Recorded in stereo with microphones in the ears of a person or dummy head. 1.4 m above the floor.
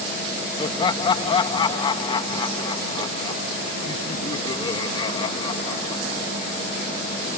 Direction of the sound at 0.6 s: 20° left (ahead or behind).